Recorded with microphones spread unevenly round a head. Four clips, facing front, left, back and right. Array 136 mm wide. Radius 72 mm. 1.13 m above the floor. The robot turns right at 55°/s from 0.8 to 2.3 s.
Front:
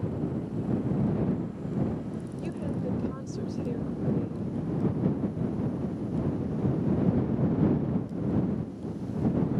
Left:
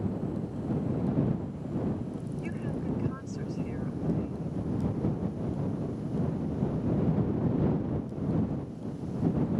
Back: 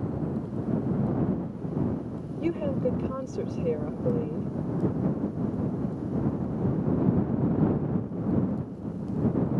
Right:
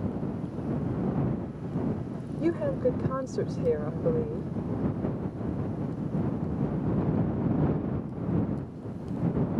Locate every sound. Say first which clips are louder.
2.4 s a woman speaking: right 11 dB, back 7 dB; 120° right